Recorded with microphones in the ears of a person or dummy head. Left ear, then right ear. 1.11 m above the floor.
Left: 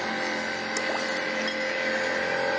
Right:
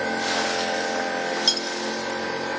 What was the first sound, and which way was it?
Cutlery clinking, 45° right (ahead or behind).